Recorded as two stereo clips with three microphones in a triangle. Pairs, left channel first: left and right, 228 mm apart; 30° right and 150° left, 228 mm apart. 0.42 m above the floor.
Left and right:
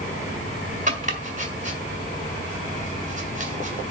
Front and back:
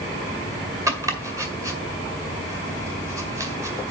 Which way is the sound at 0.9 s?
135° right.